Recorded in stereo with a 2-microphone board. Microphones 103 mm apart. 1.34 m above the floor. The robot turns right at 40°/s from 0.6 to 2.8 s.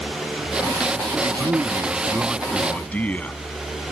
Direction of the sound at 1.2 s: 50° right.